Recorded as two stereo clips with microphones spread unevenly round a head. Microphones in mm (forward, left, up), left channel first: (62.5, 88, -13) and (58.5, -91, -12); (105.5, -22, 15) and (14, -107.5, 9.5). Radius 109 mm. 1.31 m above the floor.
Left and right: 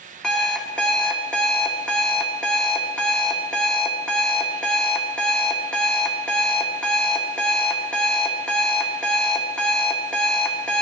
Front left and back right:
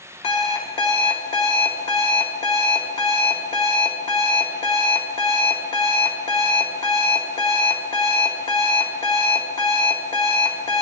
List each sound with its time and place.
0.2 s an alarm clock: 5° left, 1.8 m